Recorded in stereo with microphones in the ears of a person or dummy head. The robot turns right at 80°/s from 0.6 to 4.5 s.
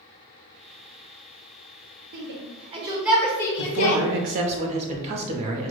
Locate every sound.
2.1 s a shout: 55° right (ahead or behind), 0.7 m; by 4.0 s 50° left (ahead or behind), 0.7 m
3.6 s a man speaking: 115° right, 0.7 m; by 5.7 s 40° right, 0.7 m